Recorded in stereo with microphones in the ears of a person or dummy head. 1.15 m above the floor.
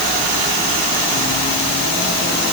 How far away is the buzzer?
I don't hear a buzzer.